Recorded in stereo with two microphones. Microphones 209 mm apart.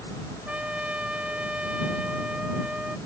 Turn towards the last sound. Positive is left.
turn(degrees=-5)  # may be behind; listen again after turning